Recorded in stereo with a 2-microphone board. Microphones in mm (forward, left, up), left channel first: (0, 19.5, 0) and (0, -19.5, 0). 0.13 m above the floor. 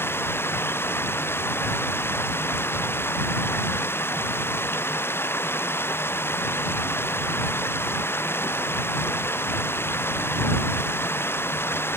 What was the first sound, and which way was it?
Running water, 70° left (ahead or behind).